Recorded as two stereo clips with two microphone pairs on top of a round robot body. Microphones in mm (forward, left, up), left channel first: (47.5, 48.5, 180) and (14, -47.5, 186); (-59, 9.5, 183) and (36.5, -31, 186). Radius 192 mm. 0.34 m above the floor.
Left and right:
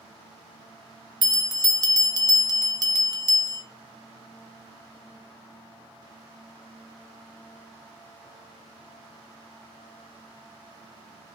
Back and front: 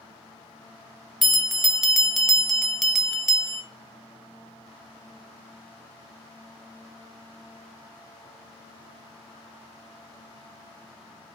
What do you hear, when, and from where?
1.2 s a bell: 115° right, 0.6 m